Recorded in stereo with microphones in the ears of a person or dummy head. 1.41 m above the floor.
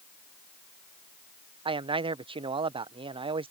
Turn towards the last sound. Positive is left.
turn(degrees=-25)  # may be behind; listen again after turning